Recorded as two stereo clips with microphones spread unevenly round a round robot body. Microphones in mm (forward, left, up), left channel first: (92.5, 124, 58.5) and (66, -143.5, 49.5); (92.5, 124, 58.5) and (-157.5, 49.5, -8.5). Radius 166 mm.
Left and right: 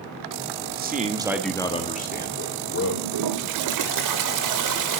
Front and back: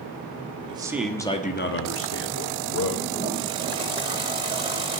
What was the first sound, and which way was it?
A man speaking, 120° right.